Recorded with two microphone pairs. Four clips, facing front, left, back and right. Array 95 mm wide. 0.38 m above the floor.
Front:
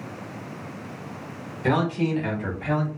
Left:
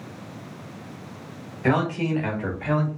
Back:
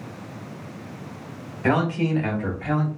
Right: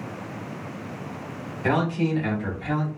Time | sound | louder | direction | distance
1.6 | a man speaking | left 1 dB, back 1 dB | 160° left | 1.4 m